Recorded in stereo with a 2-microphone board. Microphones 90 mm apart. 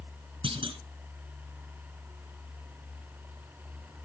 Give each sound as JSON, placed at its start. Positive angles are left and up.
{"t": 0.4, "sound": "a clunk", "side_deg": -65, "distance_m": 1.4}